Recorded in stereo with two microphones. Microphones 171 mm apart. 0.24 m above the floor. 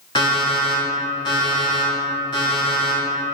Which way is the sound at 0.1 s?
30° left (ahead or behind).